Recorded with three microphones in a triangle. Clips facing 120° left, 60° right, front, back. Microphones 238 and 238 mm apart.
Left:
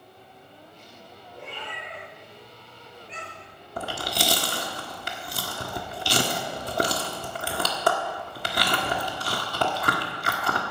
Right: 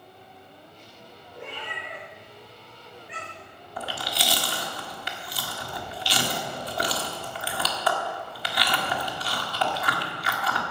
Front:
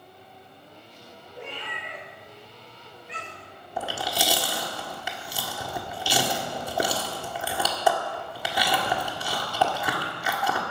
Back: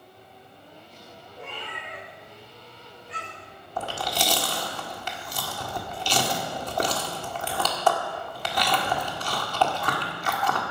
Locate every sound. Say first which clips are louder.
1.4 s a cat meowing: right 1 dB, front 1 dB; 10° left, 5 m; by 3.5 s 15° left, 6 m
3.8 s chewing: left 3 dB, even; 80° left, 1.5 m